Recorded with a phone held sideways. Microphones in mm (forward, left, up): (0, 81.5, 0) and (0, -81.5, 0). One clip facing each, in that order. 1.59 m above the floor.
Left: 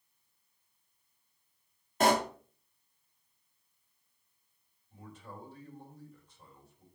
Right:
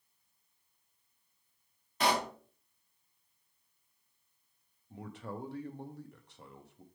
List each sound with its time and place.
2.0 s a pop: 50° left (ahead or behind), 0.6 m
4.9 s a man speaking: 75° right (ahead or behind), 0.7 m